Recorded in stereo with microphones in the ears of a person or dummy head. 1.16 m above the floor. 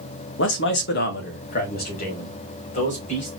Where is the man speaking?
65° left (ahead or behind), 1.0 m; by 3.3 s 40° left (ahead or behind), 2.5 m.